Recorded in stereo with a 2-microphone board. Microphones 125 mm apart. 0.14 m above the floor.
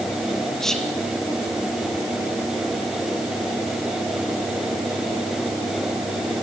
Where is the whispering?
5° left (ahead or behind), 4 m.